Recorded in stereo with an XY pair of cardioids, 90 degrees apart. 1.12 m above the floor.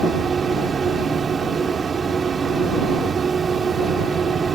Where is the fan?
50° right.